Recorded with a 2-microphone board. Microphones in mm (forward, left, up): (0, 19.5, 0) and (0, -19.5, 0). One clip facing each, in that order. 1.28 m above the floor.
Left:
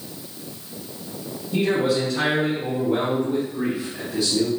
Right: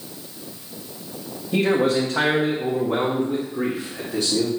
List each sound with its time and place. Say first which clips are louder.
1.5 s a man speaking: right 2 dB; 80° right, 1.5 m; by 4.5 s 40° right (ahead or behind), 2 m